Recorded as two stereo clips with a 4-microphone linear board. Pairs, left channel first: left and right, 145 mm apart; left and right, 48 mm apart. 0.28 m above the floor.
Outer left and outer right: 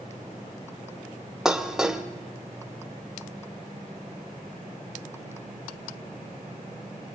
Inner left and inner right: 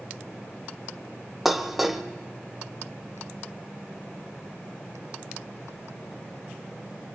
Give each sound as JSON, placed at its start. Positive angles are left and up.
{"t": 1.4, "sound": "dishes clattering", "side_deg": -5, "distance_m": 0.8}